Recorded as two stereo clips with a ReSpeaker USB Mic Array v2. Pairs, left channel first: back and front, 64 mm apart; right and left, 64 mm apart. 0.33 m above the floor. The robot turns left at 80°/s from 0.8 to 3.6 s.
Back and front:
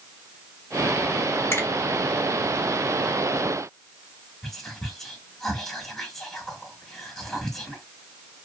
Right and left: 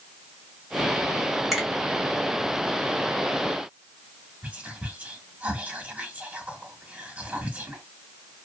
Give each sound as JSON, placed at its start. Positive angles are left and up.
{"t": 1.5, "sound": "a finger snap", "azimuth_deg": 180, "distance_m": 1.6}
{"t": 4.4, "sound": "whispering", "azimuth_deg": 100, "distance_m": 1.0}